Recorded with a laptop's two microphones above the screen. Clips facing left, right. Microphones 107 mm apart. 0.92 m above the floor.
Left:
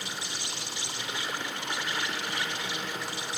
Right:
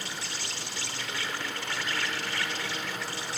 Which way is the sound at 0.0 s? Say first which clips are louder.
Even; 20° left (ahead or behind).